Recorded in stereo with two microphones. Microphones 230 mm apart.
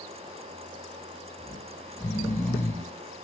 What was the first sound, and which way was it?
Snoring, 10° left (ahead or behind).